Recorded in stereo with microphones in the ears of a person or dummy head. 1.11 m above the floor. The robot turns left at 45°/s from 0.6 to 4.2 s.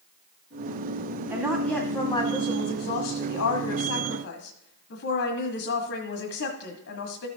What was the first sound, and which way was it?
A woman speaking, 165° right.